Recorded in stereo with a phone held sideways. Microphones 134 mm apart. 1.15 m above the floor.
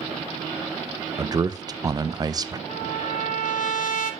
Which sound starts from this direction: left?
A trumpet, at 2.7 s.